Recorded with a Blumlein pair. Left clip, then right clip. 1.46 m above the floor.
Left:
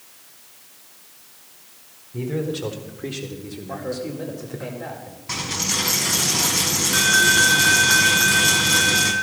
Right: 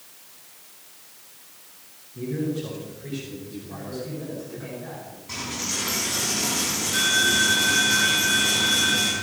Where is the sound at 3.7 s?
50° left, 4 m.